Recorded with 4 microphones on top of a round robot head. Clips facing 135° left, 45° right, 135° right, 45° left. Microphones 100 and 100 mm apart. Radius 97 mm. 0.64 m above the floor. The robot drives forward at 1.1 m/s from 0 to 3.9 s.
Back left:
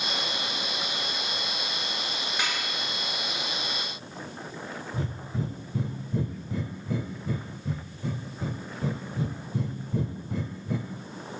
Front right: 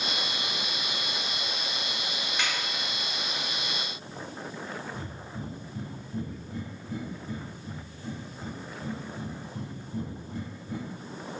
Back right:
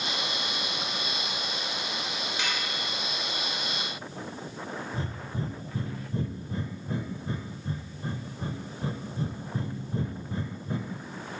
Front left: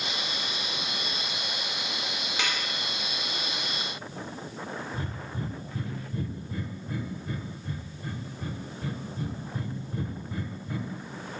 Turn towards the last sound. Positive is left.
turn(degrees=160)